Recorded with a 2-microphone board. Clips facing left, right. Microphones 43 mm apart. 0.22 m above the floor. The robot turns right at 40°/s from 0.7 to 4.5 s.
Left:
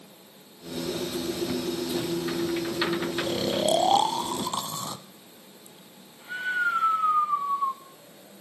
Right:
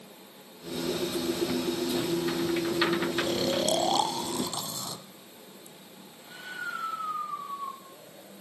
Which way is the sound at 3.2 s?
10° left (ahead or behind).